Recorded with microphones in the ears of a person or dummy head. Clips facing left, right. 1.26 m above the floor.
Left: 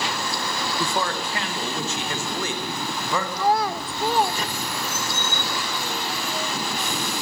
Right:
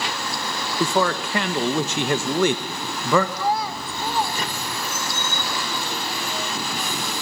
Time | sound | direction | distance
0.8 | a man speaking | 60° right (ahead or behind) | 1.0 m
3.4 | a child speaking | 55° left (ahead or behind) | 0.6 m